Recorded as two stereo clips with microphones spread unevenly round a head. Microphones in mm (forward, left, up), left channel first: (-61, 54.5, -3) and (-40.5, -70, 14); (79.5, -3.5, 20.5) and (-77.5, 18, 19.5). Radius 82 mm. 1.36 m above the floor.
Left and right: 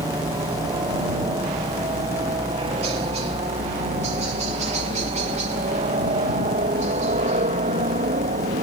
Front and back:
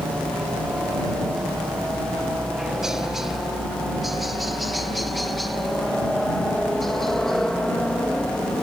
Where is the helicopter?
110° right; by 8.6 s 95° right.